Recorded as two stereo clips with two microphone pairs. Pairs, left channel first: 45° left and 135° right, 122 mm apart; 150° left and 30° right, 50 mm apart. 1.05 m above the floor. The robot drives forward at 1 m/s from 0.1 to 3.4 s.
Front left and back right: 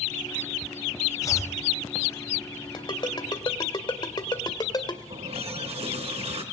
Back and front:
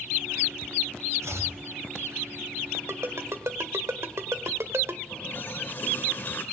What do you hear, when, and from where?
1.2 s chopping: 15° right, 3.5 m
2.7 s a ringtone: 5° right, 2.5 m
5.1 s a running tap: 160° right, 3 m